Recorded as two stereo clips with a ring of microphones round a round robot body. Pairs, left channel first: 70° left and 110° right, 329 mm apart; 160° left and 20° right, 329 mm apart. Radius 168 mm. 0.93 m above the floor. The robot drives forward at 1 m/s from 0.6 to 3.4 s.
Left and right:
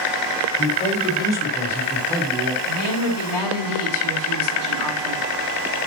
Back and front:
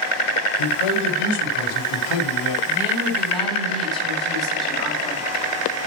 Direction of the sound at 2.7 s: 60° left.